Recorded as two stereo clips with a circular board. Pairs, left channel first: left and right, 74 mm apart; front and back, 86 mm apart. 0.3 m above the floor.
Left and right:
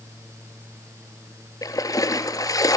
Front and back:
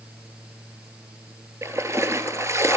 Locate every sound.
1.6 s a splash: 125° left, 1.2 m